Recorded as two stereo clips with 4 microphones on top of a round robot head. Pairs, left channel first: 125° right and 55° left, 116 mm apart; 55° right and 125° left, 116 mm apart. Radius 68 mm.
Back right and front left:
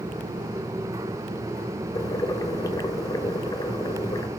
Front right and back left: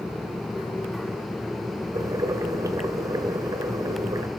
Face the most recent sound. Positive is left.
turn(degrees=180)